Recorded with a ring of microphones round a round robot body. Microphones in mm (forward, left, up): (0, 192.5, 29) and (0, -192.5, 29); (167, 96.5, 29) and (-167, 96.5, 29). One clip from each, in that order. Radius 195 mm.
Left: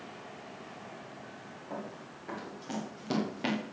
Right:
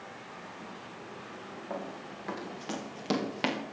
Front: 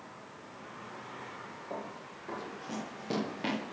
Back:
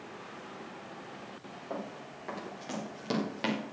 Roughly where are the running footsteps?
Behind right.